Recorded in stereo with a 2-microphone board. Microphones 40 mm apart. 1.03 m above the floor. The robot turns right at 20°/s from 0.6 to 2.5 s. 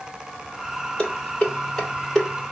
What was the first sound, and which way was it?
Dishes clattering, 35° left (ahead or behind).